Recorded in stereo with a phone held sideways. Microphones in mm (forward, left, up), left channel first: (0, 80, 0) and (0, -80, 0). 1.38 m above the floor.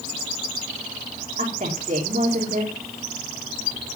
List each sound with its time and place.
1.4 s a woman speaking: 55° right (ahead or behind), 3 m